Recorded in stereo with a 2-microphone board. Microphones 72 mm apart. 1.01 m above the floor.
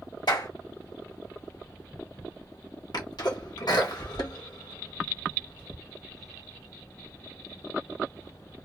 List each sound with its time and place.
0.3 s a clap: 80° left, 1.7 m
2.9 s a sneeze: 65° left (ahead or behind), 1.4 m